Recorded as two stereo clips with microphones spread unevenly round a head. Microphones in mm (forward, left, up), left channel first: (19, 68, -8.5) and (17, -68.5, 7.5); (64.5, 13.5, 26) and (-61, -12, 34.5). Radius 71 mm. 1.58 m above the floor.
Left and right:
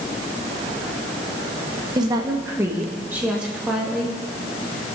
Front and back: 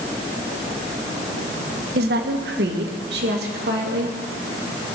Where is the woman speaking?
155° right, 1.6 m; by 4.2 s 175° right, 3 m.